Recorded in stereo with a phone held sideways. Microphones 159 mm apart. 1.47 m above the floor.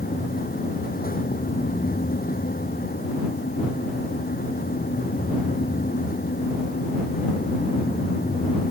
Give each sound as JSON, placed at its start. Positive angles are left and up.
{"t": 0.0, "sound": "a fan", "side_deg": 75}